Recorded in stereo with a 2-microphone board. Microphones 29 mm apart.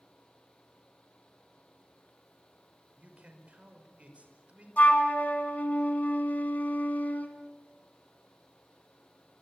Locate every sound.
3.0 s a man speaking: 45° right (ahead or behind), 5 m
4.8 s a flute: 60° left (ahead or behind), 2.5 m